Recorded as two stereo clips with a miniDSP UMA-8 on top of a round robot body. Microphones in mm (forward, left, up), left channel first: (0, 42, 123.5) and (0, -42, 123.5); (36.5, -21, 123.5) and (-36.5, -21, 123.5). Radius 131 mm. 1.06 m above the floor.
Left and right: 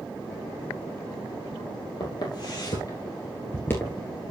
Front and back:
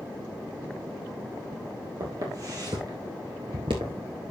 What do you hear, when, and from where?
2.0 s footsteps: 130° left, 2.5 m; by 4.0 s 170° left, 1.1 m